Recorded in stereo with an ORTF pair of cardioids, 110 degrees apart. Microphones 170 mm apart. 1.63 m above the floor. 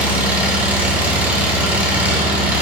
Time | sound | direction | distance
0.0 | an engine running | 10° right | 2 m